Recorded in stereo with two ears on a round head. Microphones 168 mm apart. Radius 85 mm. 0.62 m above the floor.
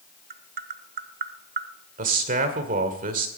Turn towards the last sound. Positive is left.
turn(degrees=-45)  # may be behind; listen again after turning